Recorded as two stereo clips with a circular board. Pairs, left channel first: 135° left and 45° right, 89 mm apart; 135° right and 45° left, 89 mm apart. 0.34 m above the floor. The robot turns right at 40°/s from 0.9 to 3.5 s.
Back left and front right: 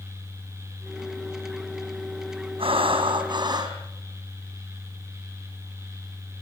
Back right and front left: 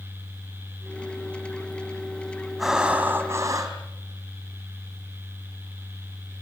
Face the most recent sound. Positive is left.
turn(degrees=-5)